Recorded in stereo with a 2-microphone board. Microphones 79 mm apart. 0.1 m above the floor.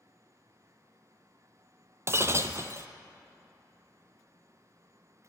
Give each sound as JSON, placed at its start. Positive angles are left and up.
{"t": 2.1, "sound": "breaking glass", "side_deg": -35, "distance_m": 0.6}